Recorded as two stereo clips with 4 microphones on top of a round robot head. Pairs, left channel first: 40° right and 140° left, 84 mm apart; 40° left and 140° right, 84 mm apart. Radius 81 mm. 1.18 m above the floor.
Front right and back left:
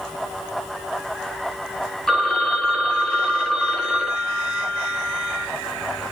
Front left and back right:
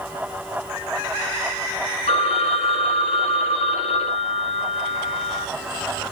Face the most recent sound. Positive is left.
turn(degrees=45)